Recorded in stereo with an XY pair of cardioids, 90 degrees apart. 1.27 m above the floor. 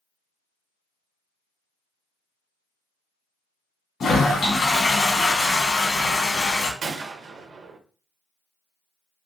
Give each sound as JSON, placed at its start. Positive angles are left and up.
{"t": 4.0, "sound": "a toilet flushing", "azimuth_deg": 55, "distance_m": 1.1}
{"t": 6.8, "sound": "a gunshot", "azimuth_deg": -70, "distance_m": 0.6}